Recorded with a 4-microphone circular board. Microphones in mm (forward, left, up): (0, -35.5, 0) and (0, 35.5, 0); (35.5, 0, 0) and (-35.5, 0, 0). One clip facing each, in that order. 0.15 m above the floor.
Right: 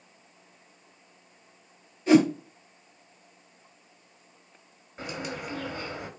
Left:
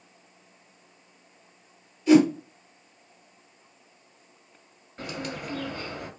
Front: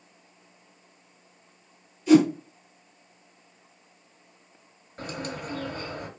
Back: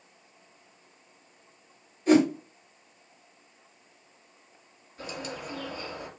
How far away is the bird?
About 1.6 m.